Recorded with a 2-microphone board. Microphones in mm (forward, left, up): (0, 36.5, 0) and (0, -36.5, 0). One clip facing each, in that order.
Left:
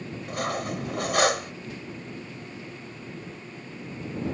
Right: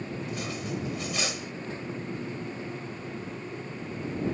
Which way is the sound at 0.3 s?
60° left (ahead or behind).